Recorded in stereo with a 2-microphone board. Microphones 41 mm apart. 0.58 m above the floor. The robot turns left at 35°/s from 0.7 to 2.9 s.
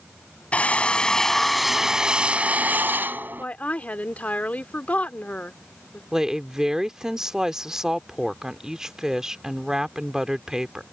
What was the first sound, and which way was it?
A drill, 30° left.